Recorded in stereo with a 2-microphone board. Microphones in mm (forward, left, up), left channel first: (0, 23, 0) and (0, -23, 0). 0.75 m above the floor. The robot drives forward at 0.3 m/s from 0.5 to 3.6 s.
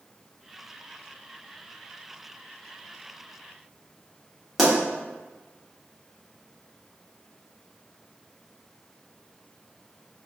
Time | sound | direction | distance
4.6 | a pop | 5° left (ahead or behind) | 1.4 m